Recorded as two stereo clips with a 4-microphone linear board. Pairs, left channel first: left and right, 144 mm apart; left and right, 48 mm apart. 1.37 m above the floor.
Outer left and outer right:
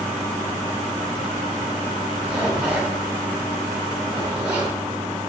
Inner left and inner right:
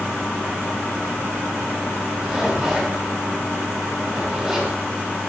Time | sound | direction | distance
2.2 | a zipper | 10° right (ahead or behind) | 1.9 m